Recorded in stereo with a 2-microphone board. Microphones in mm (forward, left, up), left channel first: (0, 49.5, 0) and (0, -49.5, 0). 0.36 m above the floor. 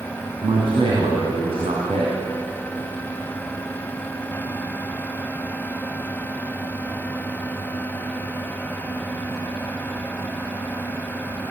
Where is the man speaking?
70° right (ahead or behind), 4 m.